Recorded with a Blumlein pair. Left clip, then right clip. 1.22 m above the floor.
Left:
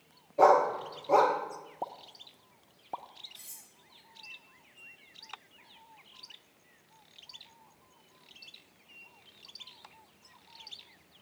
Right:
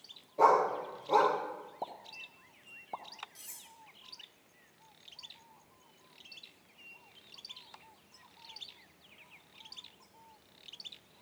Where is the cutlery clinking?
5° right, 5.5 m.